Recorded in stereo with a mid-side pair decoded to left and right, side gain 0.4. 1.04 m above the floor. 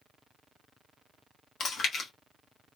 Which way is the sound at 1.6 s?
65° left.